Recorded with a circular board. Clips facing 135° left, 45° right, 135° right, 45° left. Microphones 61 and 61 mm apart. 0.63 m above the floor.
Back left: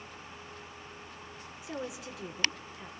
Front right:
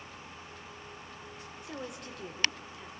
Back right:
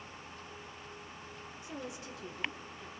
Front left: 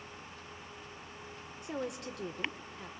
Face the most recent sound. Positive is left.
turn(degrees=50)